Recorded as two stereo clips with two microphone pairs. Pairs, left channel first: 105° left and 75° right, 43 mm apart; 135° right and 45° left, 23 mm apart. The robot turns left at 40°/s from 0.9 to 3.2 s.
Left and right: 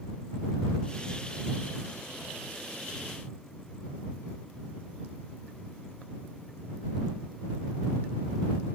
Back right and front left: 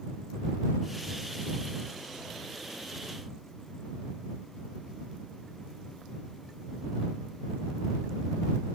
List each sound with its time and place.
Only background noise.